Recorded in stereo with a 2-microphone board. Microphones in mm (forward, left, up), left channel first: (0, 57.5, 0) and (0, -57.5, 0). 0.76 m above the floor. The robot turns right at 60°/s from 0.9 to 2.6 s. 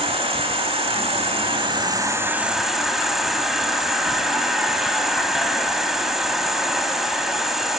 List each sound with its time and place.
0.0 s an insect: 105° right, 0.8 m; by 7.8 s 5° right, 0.8 m